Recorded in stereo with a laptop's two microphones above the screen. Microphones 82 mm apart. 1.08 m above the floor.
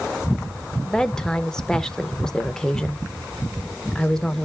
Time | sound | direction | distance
0.8 | a woman speaking | 5° left (ahead or behind) | 0.9 m